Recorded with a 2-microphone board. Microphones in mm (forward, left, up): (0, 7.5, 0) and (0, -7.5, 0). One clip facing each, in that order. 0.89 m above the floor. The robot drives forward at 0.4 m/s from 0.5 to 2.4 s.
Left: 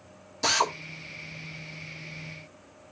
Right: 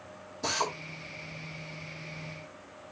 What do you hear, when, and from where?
0.4 s a drill: 60° left (ahead or behind), 1.5 m; by 0.7 s 65° left (ahead or behind), 1.5 m